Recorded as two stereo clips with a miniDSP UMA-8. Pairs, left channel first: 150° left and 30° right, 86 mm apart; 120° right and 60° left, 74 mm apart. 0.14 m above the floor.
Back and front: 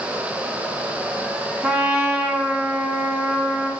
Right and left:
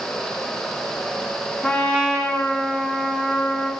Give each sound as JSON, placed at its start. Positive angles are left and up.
{"t": 1.6, "sound": "a trumpet", "azimuth_deg": -75, "distance_m": 0.6}